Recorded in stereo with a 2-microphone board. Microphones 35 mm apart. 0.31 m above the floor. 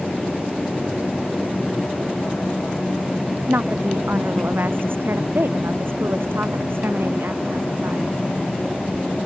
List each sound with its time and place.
3.5 s a woman speaking: 75° right (ahead or behind); by 8.2 s 85° right